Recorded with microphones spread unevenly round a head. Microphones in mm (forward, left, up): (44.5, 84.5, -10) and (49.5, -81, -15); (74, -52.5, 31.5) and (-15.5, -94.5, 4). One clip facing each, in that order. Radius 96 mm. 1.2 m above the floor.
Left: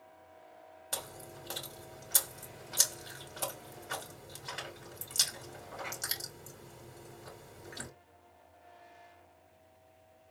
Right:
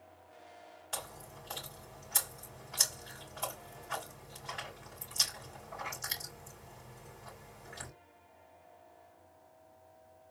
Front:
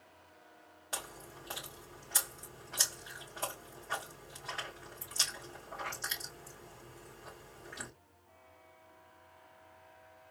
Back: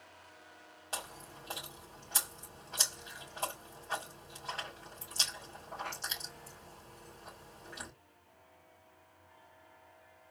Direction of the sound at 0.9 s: 120° left.